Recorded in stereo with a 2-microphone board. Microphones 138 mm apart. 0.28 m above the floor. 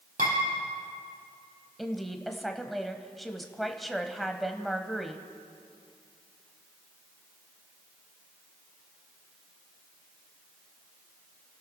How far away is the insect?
No insect in this recording.